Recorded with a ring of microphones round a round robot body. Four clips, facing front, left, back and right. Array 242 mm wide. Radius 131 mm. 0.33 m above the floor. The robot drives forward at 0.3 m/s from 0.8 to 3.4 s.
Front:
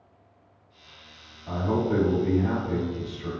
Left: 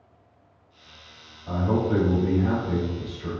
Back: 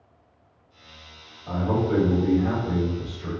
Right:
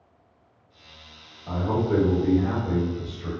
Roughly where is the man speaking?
Behind right.